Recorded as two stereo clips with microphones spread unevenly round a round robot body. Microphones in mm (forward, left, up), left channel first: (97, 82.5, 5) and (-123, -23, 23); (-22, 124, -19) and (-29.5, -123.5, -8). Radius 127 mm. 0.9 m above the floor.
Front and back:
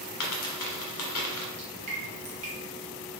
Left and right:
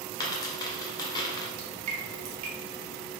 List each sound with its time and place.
0.2 s a dropped coin: 15° left, 1.1 m
1.6 s dripping: 90° right, 1.2 m